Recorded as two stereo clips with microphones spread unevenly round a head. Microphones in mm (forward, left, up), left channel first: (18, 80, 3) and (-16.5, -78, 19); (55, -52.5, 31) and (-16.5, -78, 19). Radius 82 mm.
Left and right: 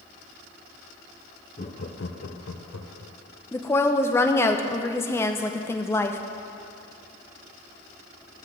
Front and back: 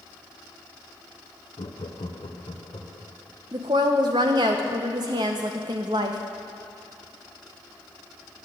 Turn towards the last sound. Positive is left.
turn(degrees=155)